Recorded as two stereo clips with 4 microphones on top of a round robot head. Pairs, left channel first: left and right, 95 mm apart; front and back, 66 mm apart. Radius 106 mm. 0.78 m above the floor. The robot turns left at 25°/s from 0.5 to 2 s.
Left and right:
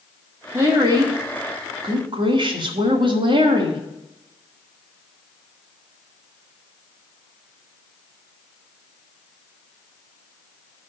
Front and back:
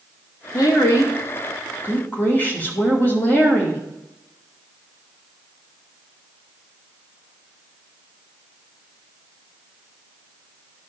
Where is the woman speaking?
30° right, 2 m; by 3.8 s 65° right, 2 m.